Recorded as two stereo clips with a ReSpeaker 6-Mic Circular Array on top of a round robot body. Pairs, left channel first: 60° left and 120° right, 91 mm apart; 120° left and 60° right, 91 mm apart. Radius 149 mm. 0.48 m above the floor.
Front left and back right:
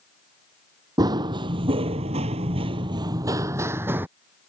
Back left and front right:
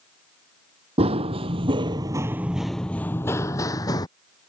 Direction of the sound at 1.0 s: 70° right.